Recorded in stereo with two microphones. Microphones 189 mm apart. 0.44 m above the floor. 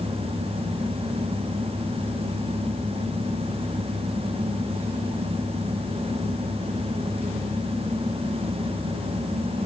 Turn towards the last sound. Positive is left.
No sound to turn to.